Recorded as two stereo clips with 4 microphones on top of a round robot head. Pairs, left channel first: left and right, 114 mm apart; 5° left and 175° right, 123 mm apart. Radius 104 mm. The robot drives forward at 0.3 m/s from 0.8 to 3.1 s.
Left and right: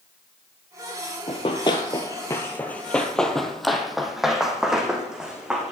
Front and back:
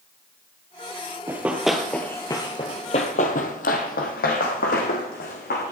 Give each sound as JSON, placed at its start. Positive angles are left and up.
{"t": 1.3, "sound": "running footsteps", "azimuth_deg": 125, "distance_m": 1.2}